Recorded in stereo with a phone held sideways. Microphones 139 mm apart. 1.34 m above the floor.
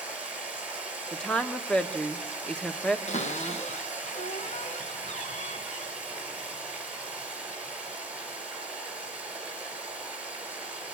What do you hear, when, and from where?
0.0 s running water: 10° right (ahead or behind), 4.5 m
1.1 s a woman speaking: 5° left (ahead or behind), 1.1 m
3.1 s a cupboard door: 55° left (ahead or behind), 1.4 m